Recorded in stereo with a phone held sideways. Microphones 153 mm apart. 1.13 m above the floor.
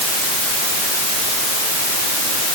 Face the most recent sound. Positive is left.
No sound to turn to.